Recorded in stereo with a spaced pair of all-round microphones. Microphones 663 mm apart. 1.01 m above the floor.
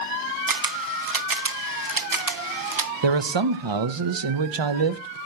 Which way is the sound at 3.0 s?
45° right (ahead or behind).